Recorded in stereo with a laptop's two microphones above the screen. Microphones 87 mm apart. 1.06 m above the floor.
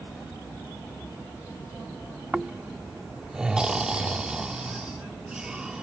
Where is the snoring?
10° right (ahead or behind).